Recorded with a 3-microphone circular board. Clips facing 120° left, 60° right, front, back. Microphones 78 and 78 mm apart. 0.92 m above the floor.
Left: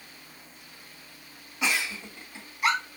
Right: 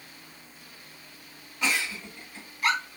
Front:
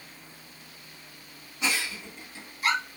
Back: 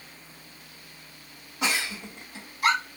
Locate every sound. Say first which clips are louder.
1.6 s a giggle: even, back 2 dB; 165° right, 3 m